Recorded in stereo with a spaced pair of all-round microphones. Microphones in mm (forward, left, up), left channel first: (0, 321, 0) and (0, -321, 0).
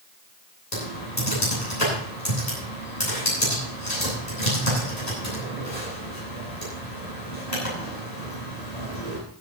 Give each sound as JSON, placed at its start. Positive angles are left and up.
{"t": 0.7, "sound": "typing on a keyboard", "side_deg": 75, "distance_m": 9.5}